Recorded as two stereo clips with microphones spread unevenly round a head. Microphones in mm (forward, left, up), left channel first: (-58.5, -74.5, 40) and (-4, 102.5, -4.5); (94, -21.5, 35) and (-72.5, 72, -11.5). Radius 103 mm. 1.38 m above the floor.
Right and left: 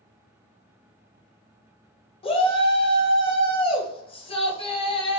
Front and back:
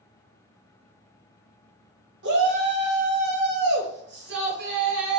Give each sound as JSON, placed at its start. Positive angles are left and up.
{"t": 2.2, "sound": "a shout", "azimuth_deg": -170, "distance_m": 1.2}